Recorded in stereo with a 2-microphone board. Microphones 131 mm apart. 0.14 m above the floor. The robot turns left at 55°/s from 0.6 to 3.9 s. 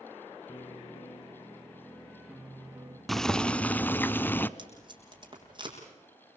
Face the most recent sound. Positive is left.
turn(degrees=-35)  # may be behind; listen again after turning